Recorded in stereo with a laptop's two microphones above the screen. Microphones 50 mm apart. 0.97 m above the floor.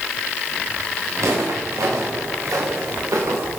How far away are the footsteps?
About 7 m.